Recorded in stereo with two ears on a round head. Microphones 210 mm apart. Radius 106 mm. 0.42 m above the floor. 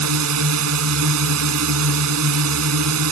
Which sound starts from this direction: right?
A drone, at 0.0 s.